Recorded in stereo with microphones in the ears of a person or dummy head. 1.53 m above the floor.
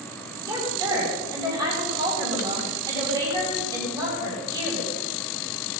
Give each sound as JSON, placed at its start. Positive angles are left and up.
{"t": 0.4, "sound": "a woman speaking", "side_deg": -20, "distance_m": 7.0}